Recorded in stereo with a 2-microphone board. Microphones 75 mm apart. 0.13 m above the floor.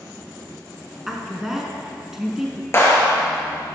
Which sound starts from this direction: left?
A clap, at 2.7 s.